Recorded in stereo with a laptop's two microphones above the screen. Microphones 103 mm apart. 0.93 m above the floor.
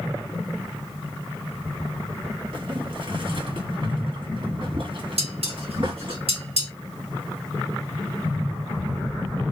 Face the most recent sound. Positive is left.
turn(degrees=-75)  # may be behind; listen again after turning